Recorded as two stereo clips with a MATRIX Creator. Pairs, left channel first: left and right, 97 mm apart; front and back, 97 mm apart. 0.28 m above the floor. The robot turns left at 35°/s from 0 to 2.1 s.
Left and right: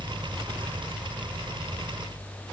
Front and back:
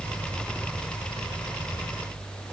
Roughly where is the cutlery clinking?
I don't hear cutlery clinking.